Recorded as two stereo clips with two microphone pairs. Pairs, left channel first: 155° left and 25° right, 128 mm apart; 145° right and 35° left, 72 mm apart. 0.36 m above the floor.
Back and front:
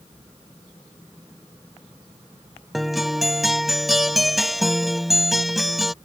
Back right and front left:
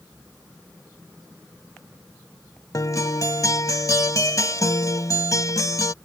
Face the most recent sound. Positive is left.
turn(degrees=-115)